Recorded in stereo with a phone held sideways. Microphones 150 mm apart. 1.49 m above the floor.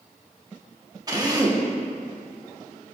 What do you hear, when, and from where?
1.1 s a drill: 25° right (ahead or behind), 1.4 m